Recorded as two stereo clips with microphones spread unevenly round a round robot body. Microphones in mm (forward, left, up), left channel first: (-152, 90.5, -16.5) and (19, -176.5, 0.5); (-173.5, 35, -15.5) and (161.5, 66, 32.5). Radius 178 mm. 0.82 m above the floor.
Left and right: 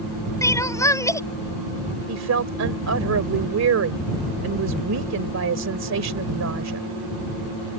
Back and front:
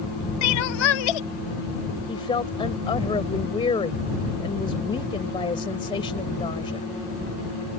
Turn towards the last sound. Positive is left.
turn(degrees=-95)